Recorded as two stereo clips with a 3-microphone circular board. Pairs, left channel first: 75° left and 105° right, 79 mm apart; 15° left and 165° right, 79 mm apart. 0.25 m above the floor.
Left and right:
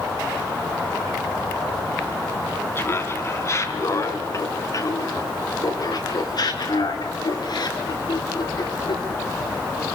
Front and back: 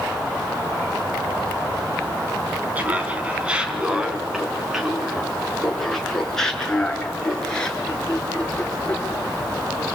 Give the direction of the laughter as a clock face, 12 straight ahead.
8 o'clock.